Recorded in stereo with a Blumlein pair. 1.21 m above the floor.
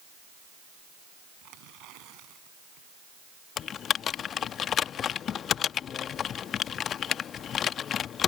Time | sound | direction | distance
1.4 | tearing paper | 40° right | ?
3.6 | typing on a keyboard | 25° left | ?